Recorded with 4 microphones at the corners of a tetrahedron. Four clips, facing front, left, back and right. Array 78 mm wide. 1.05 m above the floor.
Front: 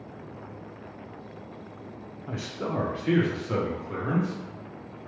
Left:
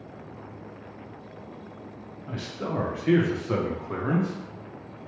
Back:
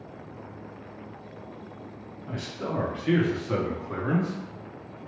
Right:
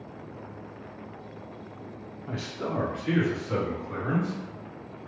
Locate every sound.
2.3 s a man speaking: 35° right, 0.6 m; by 4.3 s 100° left, 1.0 m